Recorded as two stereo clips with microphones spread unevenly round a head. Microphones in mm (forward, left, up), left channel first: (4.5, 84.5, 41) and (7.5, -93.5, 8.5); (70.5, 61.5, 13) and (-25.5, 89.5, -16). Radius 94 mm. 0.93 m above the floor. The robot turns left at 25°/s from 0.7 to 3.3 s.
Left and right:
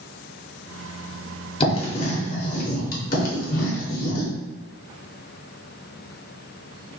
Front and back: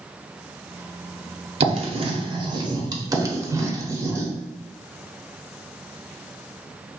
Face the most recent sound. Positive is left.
turn(degrees=95)